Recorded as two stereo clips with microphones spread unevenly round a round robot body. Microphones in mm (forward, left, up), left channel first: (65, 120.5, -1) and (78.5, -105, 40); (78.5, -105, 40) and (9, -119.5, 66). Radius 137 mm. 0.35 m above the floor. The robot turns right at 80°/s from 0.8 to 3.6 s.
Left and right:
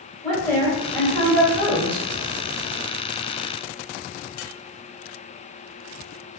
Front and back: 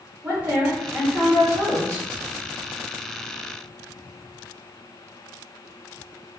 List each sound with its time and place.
0.2 s a woman speaking: 95° left, 1.2 m; by 2.0 s 165° right, 1.2 m